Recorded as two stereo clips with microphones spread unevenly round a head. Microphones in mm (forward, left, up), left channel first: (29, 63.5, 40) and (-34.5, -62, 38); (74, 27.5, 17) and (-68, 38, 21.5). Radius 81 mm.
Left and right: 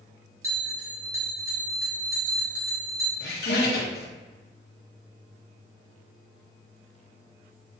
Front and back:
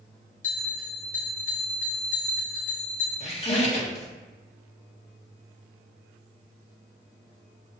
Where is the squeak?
45° left, 1.6 m.